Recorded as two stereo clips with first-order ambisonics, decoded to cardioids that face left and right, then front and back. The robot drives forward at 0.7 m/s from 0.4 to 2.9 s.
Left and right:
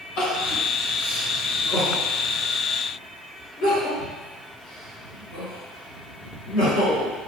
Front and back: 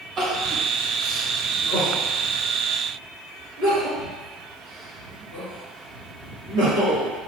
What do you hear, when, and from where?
0.2 s crying: 110° left, 1.7 m; by 7.1 s 145° left, 3 m